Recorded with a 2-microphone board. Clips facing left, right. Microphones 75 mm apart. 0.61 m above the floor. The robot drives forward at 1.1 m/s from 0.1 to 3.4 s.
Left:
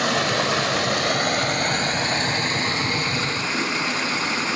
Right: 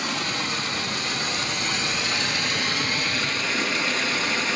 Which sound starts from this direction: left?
Running water, at 0.0 s.